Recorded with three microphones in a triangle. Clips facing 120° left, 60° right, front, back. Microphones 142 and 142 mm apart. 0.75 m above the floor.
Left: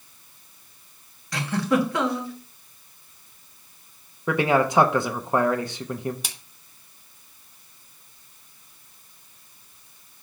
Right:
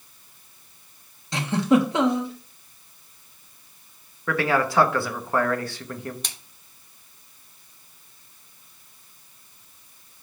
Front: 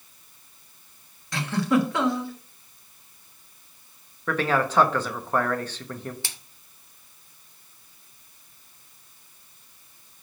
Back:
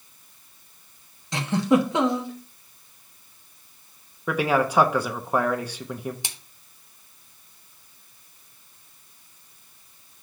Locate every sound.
1.3 s a giggle: 120° right, 1.2 m
4.3 s a man speaking: 125° left, 0.7 m
6.2 s a splash: 170° right, 0.9 m